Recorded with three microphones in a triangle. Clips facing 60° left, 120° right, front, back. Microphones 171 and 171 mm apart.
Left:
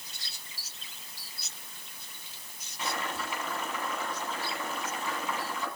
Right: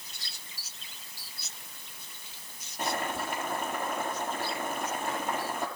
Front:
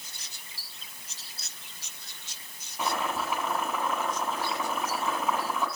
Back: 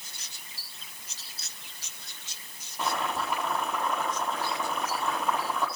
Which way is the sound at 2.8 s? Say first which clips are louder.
Right 3 dB, even; 85° right.